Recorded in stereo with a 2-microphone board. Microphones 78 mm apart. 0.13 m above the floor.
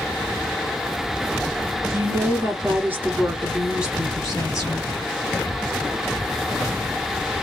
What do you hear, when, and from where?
1.9 s a woman speaking: 35° right (ahead or behind), 1.7 m; by 4.9 s 5° left (ahead or behind), 1.4 m